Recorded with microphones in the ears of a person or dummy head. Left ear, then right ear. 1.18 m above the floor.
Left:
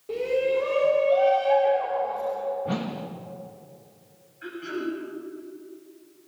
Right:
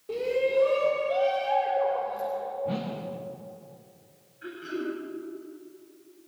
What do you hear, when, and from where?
0.1 s a shout: 5° right (ahead or behind), 3 m
2.6 s a whoosh: 35° left (ahead or behind), 1.3 m
4.4 s throat clearing: 15° left (ahead or behind), 9 m